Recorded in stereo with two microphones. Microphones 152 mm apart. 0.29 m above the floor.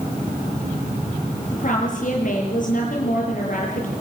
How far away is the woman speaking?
About 7.5 m.